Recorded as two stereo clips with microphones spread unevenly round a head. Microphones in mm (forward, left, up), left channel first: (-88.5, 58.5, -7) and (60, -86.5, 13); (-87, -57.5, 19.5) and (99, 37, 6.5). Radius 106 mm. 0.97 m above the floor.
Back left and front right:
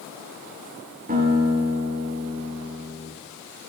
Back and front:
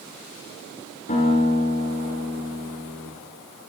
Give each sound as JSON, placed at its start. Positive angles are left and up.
{"t": 1.1, "sound": "a guitar", "azimuth_deg": -95, "distance_m": 9.5}